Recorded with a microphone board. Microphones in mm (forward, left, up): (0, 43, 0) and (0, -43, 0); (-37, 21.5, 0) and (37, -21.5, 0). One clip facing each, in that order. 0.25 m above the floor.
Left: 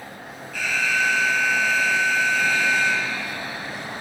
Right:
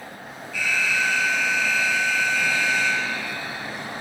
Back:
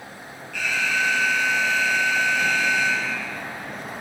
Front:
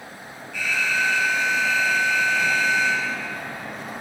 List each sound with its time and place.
0.5 s an alarm: 125° left, 3.5 m